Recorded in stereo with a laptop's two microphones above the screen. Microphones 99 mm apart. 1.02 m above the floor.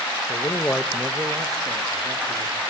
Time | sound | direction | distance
0.3 | a man speaking | 50° left (ahead or behind) | 1.0 m